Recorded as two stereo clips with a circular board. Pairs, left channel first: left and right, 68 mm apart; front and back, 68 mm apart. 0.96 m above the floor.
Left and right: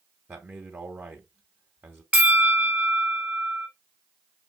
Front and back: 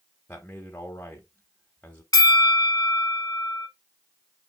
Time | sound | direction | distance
0.3 | a man speaking | 50° right | 1.1 m
2.1 | a bell | 20° right | 0.8 m